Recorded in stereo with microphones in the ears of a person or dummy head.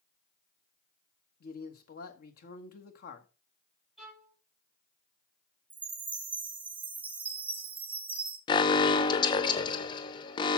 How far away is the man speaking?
About 1.2 m.